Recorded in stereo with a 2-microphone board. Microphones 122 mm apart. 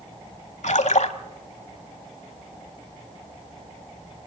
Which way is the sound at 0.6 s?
70° left (ahead or behind).